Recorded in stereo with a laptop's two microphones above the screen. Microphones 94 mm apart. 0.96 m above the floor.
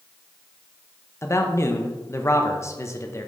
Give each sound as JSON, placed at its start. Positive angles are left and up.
{"t": 1.2, "sound": "a man speaking", "side_deg": 30, "distance_m": 0.7}